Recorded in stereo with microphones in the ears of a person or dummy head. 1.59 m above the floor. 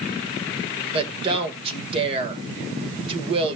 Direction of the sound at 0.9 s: 30° right (ahead or behind).